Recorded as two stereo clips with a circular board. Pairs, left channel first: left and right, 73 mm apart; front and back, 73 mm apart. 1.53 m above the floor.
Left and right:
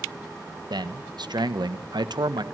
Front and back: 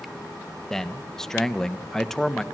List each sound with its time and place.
0.7 s a man speaking: 85° right, 1.3 m